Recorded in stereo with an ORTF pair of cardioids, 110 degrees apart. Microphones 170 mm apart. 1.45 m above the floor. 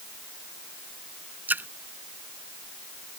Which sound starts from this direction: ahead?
A splash, at 1.5 s.